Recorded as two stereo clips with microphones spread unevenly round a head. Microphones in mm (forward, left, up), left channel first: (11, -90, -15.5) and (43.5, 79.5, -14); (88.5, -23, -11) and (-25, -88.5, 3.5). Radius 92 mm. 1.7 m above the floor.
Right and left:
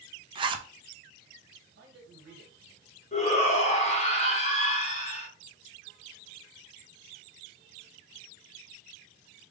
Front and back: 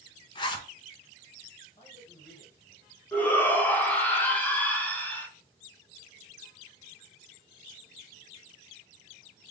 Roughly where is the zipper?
Ahead left.